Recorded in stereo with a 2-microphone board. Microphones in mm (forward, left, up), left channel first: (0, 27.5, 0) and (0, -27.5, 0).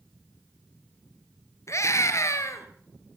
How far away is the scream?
About 3 m.